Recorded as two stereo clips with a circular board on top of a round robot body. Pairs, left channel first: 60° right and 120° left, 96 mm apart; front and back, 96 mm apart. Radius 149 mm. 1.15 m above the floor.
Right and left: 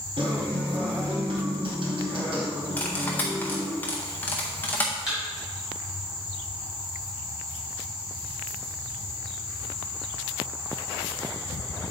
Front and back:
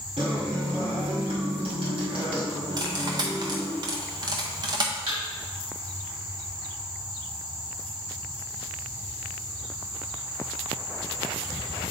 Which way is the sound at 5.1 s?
155° right.